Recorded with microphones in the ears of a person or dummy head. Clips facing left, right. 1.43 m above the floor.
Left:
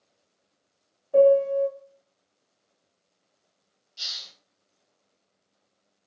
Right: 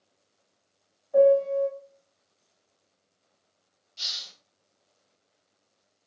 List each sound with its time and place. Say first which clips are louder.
1.1 s a piano: left 2 dB; 40° left (ahead or behind), 0.7 m
4.0 s a hiss: even; 5° left (ahead or behind), 0.6 m